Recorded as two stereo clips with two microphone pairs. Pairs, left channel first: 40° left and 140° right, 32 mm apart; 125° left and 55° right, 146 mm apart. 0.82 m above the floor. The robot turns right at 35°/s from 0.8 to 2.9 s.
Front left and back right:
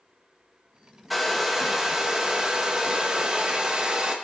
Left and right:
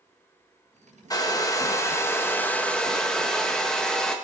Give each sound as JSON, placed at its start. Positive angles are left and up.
{"t": 1.1, "sound": "a hair dryer", "azimuth_deg": 135, "distance_m": 1.1}